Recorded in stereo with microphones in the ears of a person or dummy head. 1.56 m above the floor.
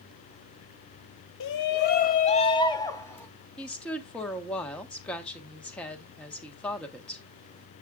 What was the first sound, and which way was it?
A shout, 70° left (ahead or behind).